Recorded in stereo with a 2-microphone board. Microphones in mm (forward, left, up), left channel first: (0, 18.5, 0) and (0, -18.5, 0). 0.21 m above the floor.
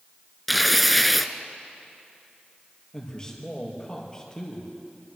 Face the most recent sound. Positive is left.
turn(degrees=20)  # may be behind; listen again after turning